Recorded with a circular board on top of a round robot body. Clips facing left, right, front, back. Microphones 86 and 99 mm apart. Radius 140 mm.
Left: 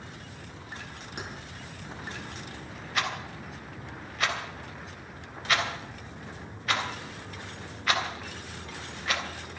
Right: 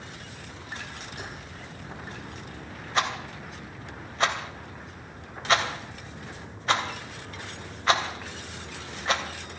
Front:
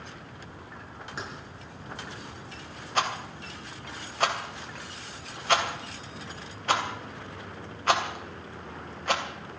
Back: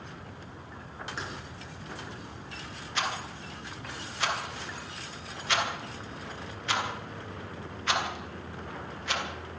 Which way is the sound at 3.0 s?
35° right.